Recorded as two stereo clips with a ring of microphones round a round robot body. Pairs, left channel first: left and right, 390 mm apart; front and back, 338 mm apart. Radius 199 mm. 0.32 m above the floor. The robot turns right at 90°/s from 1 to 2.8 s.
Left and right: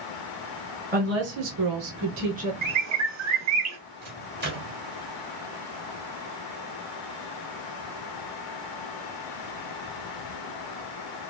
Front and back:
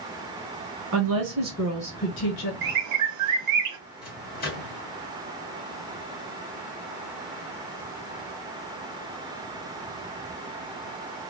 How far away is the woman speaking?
About 1.4 m.